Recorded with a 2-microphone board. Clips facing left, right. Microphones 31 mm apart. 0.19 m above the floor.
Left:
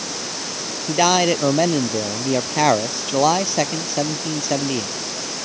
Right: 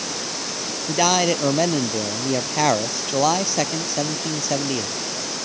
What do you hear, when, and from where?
0.9 s a man speaking: 5° left (ahead or behind)